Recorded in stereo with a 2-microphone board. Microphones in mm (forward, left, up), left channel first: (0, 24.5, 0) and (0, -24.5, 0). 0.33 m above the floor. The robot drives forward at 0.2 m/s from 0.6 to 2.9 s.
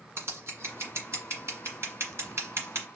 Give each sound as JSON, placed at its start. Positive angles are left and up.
{"t": 0.2, "sound": "scissors", "side_deg": -65, "distance_m": 1.7}